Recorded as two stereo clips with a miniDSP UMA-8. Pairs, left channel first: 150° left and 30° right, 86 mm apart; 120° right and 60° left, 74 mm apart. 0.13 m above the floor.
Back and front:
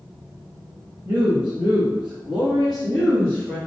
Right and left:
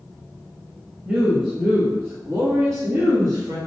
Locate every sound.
1.1 s a woman speaking: straight ahead, 1.4 m; by 3.6 s 75° left, 1.9 m